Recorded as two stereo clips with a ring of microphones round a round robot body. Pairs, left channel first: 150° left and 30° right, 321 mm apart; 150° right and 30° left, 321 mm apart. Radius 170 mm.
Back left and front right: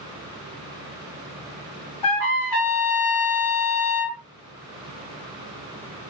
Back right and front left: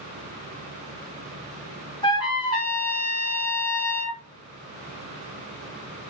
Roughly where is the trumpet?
Behind left.